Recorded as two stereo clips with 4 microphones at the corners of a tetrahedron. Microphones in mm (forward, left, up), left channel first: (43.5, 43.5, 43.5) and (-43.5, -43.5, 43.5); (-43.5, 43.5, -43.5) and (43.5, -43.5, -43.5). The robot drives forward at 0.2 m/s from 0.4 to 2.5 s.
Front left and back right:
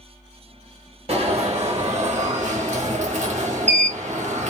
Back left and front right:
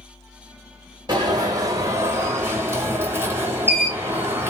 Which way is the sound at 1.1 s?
100° right.